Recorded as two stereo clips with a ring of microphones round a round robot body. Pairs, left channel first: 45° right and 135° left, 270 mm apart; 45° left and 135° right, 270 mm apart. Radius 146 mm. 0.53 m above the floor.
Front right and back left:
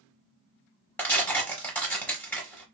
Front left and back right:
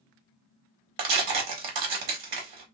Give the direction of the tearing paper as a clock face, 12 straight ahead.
4 o'clock.